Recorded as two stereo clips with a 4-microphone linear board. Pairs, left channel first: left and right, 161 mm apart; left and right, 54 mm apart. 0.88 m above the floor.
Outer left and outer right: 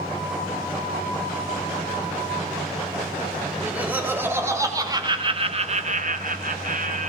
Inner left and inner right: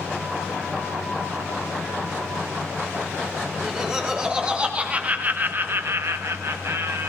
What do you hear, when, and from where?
3.5 s laughter: 10° right (ahead or behind), 3 m; by 7.1 s 50° right (ahead or behind), 1.8 m